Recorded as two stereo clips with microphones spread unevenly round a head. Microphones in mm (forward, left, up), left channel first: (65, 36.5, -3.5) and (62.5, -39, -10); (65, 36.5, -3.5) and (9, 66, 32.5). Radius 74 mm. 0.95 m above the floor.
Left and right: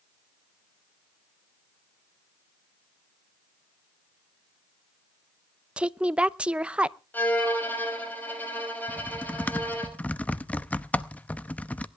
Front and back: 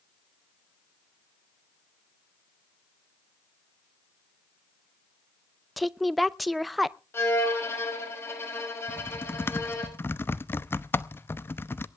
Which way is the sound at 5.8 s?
40° right.